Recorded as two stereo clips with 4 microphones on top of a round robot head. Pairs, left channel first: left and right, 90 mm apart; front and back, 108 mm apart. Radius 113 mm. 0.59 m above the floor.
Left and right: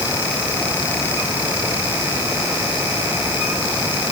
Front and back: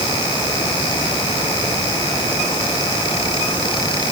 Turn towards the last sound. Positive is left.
No sound to turn to.